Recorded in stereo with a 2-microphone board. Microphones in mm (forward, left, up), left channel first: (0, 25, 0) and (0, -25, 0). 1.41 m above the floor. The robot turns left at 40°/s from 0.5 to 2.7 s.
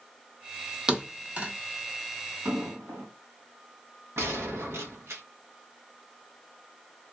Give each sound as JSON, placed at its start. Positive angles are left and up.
{"t": 0.9, "sound": "a thud", "side_deg": -15, "distance_m": 1.0}
{"t": 2.5, "sound": "an explosion", "side_deg": -60, "distance_m": 2.5}
{"t": 4.2, "sound": "a gunshot", "side_deg": -65, "distance_m": 1.0}